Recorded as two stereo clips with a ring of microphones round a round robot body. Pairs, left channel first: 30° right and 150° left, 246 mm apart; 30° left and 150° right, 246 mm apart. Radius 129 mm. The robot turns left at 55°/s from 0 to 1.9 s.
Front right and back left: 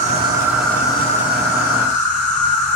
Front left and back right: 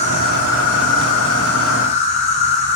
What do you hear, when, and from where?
0.0 s an insect: 95° left, 3.5 m; by 2.8 s 10° right, 3.5 m